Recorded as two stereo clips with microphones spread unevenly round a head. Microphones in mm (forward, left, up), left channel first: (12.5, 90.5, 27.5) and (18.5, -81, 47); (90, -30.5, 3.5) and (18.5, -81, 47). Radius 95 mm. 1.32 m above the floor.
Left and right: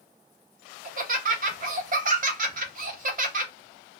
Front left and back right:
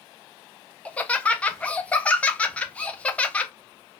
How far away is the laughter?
About 0.8 m.